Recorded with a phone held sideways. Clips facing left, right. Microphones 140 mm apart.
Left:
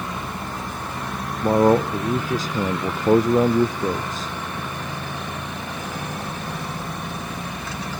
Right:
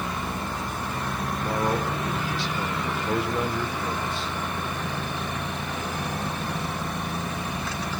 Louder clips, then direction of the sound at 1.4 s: Left 11 dB; 40° left (ahead or behind).